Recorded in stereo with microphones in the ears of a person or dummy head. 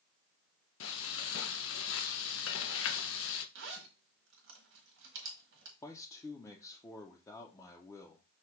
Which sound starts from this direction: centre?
A man speaking, at 5.8 s.